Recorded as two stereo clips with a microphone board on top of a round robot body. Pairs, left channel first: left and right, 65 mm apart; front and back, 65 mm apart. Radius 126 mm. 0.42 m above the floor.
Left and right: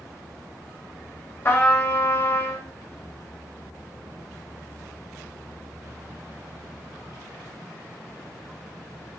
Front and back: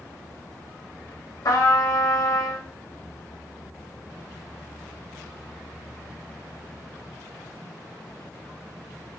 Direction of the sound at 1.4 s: 30° left.